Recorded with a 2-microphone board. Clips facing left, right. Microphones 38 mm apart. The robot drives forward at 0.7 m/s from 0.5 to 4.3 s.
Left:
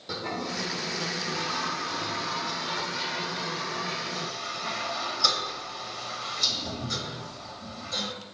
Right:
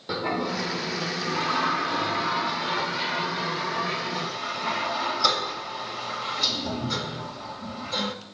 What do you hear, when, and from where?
0.1 s a toilet flushing: 20° right (ahead or behind), 1.3 m; by 8.1 s 15° right (ahead or behind), 2 m